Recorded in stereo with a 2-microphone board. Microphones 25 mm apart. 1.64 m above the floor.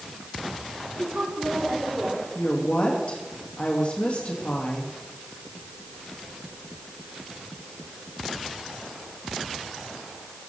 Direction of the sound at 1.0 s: 55° right (ahead or behind).